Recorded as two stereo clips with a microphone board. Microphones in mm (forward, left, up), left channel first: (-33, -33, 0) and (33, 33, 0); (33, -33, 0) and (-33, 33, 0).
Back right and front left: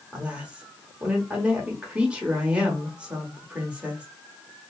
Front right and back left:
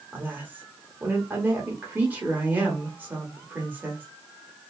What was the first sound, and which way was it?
A woman speaking, 105° left.